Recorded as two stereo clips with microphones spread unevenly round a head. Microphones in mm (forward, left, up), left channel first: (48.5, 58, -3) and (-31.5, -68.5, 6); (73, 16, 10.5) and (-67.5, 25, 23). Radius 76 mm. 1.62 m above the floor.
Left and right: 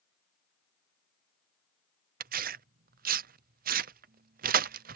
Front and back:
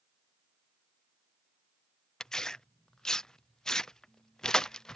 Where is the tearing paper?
90° right.